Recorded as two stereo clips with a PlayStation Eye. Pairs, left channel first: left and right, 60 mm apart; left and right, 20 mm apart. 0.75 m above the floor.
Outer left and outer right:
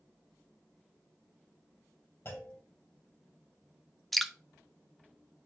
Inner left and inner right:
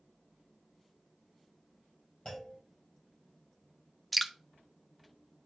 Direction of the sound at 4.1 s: Centre (ahead or behind).